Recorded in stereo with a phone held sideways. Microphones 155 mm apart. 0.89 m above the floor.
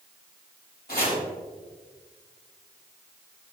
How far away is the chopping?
About 4 m.